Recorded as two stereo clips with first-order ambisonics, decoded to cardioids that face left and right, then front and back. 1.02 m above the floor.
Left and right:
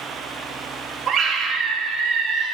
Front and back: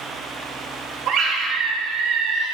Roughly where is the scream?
Behind right.